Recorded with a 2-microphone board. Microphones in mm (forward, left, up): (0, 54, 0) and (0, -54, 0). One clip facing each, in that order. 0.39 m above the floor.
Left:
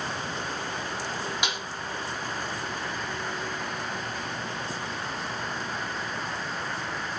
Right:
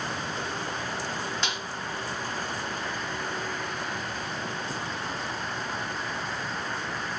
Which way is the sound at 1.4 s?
15° left (ahead or behind).